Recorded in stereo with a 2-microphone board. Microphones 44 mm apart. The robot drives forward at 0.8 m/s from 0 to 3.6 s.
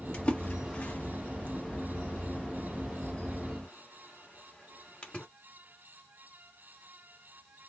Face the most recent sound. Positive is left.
turn(degrees=25)  # may be behind; listen again after turning